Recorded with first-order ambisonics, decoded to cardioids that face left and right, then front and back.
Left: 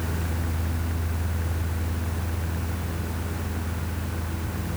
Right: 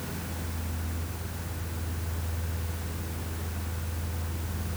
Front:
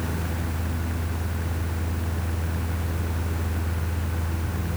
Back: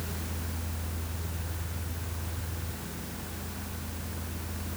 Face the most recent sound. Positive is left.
No sound to turn to.